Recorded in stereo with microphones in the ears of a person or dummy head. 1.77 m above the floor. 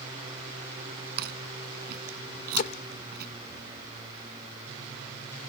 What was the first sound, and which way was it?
Chewing, 50° right (ahead or behind).